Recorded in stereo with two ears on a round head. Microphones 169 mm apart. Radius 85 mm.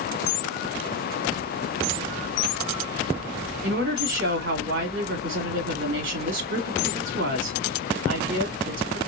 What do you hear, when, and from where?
3.6 s a woman speaking: 65° right (ahead or behind), 2.5 m